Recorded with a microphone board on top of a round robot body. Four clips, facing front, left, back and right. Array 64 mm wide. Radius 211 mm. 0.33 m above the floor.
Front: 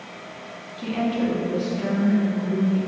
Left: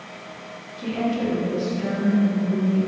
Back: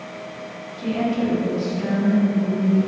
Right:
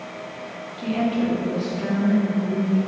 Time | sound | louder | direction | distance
0.8 | a woman speaking | right 2 dB, back 2 dB | 40° right | 0.9 m